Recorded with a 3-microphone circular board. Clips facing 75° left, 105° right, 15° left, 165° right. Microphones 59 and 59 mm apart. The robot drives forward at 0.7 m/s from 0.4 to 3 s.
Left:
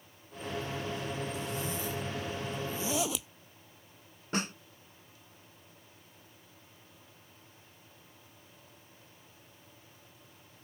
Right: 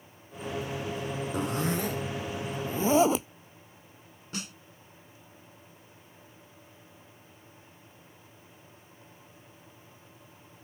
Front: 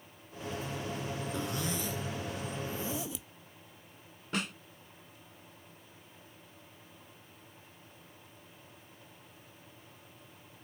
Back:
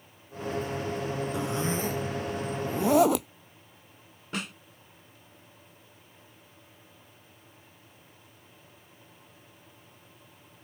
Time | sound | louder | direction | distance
1.3 | a zipper | right 7 dB, back 5 dB | 90° right | ?
4.3 | a snare drum | left 6 dB, even | 105° left | ?